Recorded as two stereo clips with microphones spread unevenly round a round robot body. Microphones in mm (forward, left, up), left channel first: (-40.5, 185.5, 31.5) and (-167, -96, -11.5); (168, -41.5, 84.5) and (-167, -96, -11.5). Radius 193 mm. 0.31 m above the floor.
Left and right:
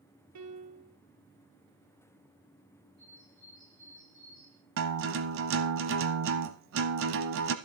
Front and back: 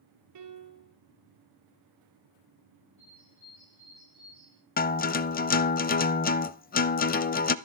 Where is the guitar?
65° right, 0.6 m.